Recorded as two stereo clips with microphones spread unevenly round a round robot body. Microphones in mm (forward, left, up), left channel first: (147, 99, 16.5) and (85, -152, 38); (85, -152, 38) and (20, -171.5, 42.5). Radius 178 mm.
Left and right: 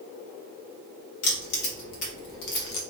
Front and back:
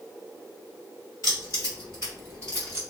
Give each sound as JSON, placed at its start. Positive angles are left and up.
{"t": 1.2, "sound": "keys jangling", "azimuth_deg": 85, "distance_m": 1.5}